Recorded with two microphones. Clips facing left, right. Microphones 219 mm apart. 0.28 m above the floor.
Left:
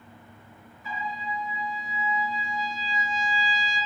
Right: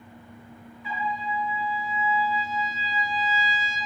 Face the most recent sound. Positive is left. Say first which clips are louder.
# right 4 dB
turn(degrees=40)  # may be behind; listen again after turning